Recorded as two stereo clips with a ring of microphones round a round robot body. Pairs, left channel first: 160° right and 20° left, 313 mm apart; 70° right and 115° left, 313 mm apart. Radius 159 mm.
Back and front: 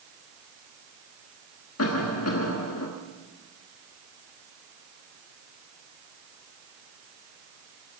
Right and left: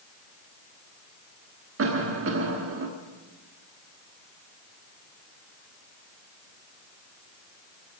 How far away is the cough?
About 1.4 m.